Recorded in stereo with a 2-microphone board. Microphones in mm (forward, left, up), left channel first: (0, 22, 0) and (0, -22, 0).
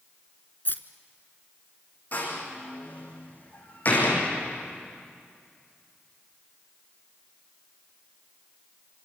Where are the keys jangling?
50° left (ahead or behind), 1.2 m.